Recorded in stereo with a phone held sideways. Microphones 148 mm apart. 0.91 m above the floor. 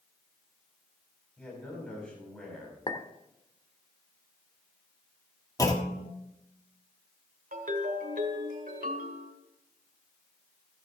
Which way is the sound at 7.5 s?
75° right (ahead or behind).